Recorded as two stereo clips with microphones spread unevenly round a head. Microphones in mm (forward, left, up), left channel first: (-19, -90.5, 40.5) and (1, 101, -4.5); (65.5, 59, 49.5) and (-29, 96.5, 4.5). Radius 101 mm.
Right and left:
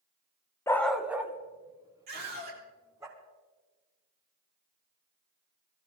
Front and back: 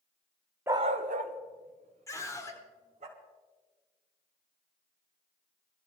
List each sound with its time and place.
0.7 s a dog barking: 95° right, 0.6 m; by 3.1 s 160° left, 3.5 m
2.1 s a scream: 45° left, 4.5 m